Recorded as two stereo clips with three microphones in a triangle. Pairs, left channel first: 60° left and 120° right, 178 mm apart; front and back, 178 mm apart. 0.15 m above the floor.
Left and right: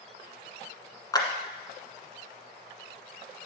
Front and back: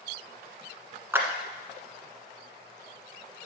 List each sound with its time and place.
1.1 s a clap: 110° left, 1.4 m